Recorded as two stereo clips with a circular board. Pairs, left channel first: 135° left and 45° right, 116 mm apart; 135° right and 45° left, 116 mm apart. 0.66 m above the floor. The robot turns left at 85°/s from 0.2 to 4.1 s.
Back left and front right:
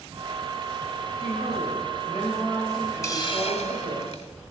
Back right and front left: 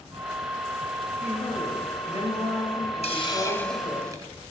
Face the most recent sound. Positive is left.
turn(degrees=110)